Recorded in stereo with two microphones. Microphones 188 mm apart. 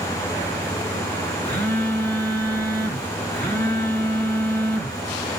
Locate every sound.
1.4 s a phone buzzing: 10° left (ahead or behind), 1.3 m